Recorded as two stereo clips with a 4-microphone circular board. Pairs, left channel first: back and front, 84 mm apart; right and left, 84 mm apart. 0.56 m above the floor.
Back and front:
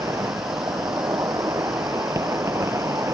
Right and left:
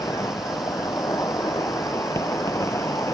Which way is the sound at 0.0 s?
45° right.